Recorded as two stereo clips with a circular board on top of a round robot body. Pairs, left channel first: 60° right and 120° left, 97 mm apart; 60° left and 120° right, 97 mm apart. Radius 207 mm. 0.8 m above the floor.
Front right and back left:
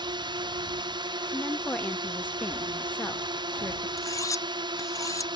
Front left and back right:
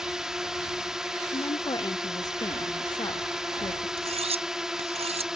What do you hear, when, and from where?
0.0 s a drone: 155° left
1.3 s a woman speaking: 15° left
4.0 s cutlery clinking: 120° right